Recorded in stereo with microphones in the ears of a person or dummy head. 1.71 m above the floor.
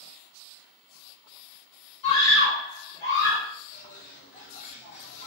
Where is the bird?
40° left (ahead or behind), 0.7 m.